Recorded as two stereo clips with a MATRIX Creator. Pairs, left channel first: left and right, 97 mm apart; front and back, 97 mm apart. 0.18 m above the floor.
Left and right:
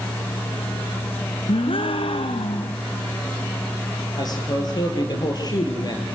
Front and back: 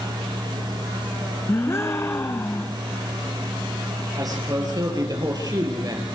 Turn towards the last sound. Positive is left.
turn(degrees=135)